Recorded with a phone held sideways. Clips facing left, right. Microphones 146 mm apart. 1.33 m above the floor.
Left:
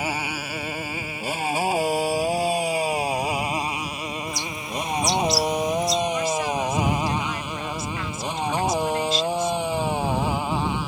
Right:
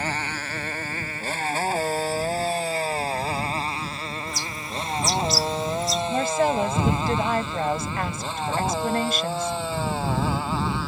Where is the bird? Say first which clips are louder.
Left 2 dB; centre (ahead or behind).